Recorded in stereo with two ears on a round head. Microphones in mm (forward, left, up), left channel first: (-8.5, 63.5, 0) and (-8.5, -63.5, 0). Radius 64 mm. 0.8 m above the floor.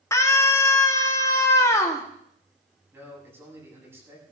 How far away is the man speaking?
About 8 m.